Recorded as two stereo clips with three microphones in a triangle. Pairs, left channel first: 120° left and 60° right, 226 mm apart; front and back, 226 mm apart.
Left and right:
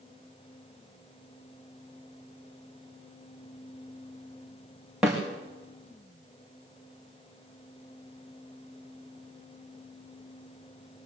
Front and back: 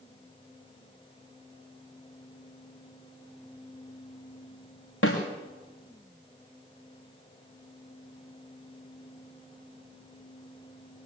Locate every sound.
5.0 s a snare drum: 30° left, 6 m